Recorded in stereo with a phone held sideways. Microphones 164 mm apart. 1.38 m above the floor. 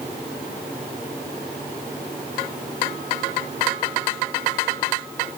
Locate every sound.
Only background noise.